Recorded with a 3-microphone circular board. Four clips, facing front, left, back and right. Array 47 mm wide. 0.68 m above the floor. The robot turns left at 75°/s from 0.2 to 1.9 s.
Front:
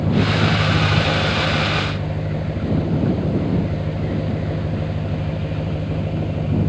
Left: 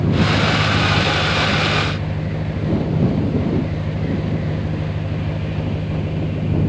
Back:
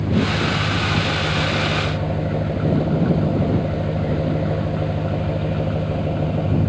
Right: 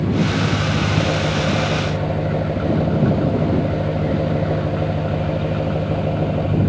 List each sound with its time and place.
0.0 s an engine running: 10° left; by 6.7 s 120° right